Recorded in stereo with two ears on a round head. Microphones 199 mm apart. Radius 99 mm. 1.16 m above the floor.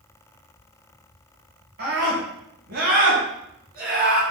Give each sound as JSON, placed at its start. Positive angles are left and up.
{"t": 1.8, "sound": "a scream", "side_deg": -50, "distance_m": 9.0}